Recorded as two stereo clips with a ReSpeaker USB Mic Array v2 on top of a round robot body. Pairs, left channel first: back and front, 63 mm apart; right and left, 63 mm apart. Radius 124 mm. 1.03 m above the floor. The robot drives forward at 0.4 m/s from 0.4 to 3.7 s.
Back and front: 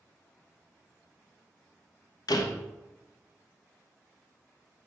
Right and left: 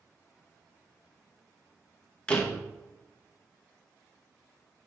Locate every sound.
2.3 s a door slam: 165° right, 0.8 m